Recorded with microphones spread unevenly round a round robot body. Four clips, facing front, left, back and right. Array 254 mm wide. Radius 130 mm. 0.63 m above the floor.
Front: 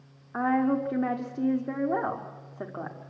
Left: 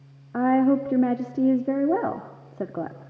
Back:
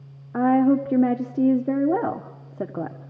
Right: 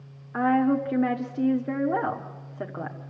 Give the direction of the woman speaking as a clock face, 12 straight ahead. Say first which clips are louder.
Left 2 dB, back 7 dB; 7 o'clock.